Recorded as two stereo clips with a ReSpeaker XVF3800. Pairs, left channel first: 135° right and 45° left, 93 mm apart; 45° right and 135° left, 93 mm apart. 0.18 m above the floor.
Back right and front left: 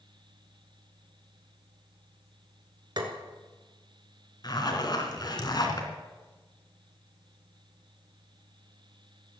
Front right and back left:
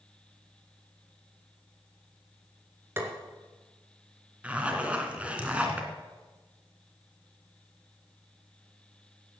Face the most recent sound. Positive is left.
turn(degrees=-155)